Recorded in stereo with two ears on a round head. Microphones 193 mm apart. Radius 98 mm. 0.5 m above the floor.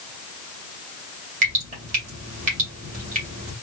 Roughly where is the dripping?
Right.